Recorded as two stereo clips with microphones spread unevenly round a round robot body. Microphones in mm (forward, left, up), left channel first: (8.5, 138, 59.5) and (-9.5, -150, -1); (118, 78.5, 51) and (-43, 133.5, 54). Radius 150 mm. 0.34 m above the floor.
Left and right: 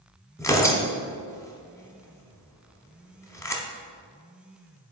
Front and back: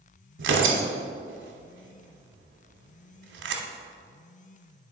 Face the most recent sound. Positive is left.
turn(degrees=170)